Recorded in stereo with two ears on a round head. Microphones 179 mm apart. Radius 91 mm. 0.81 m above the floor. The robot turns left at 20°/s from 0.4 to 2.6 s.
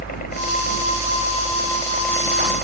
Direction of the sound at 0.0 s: 45° left.